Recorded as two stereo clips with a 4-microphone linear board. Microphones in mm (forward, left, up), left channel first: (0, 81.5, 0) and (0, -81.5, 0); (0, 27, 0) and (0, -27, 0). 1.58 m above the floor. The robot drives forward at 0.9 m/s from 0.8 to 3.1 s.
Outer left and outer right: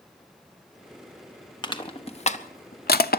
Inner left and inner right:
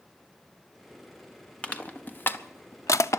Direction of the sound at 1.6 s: 30° left (ahead or behind).